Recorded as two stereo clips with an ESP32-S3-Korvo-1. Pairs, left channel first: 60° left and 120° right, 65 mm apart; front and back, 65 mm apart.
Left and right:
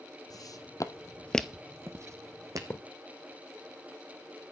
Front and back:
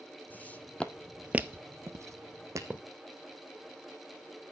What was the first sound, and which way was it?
Footsteps, 60° left.